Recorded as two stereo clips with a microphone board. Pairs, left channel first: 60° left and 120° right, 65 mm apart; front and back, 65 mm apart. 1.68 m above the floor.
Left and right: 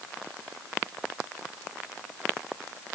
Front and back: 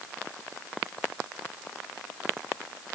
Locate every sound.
Only background noise.